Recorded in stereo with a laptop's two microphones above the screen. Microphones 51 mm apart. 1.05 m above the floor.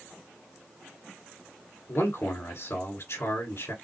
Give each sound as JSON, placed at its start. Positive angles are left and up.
{"t": 1.9, "sound": "a man speaking", "side_deg": 65, "distance_m": 3.0}